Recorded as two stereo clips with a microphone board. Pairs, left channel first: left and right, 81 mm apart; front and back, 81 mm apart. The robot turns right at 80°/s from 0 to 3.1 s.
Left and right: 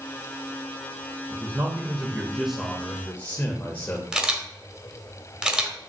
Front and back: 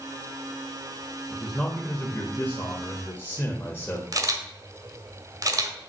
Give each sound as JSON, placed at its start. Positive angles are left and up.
{"t": 1.3, "sound": "a man speaking", "azimuth_deg": -105, "distance_m": 1.1}
{"t": 4.1, "sound": "a camera shutter", "azimuth_deg": -165, "distance_m": 1.1}